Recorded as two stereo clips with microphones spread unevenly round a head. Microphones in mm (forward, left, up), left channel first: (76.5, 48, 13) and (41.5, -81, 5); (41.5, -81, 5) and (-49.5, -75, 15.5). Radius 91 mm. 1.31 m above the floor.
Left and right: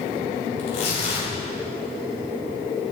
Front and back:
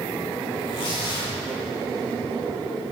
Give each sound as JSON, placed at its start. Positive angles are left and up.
{"t": 0.6, "sound": "tearing paper", "azimuth_deg": 40, "distance_m": 5.5}